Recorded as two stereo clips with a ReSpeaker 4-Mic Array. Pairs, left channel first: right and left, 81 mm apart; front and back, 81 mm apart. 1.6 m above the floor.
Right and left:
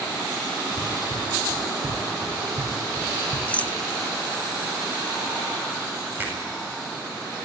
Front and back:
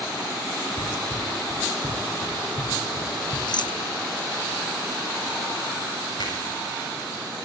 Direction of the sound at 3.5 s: 20° right.